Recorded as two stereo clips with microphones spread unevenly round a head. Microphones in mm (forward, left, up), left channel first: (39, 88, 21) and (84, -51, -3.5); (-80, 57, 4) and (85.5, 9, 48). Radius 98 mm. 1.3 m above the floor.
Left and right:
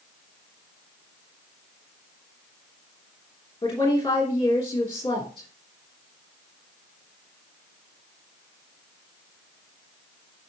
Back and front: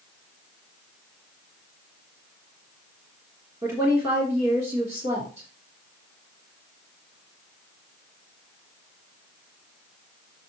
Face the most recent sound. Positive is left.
turn(degrees=45)